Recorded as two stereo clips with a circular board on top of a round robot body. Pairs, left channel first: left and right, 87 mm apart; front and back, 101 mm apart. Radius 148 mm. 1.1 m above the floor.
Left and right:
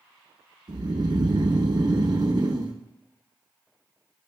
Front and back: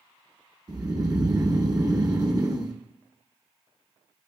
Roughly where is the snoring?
Behind right.